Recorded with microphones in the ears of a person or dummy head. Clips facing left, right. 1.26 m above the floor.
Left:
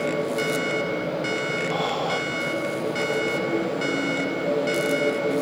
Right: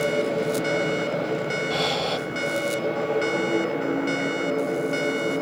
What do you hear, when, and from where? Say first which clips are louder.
1.7 s breathing: left 1 dB; 35° right (ahead or behind), 0.9 m